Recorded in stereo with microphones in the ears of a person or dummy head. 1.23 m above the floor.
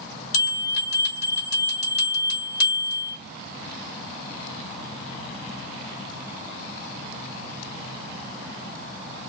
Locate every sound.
0.3 s a bell: 80° left, 1.2 m